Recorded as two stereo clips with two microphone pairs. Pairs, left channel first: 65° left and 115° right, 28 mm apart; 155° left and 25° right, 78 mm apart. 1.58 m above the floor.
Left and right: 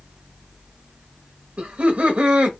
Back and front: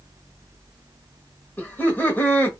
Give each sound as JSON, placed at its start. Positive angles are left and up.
{"t": 1.6, "sound": "laughter", "azimuth_deg": -145, "distance_m": 0.9}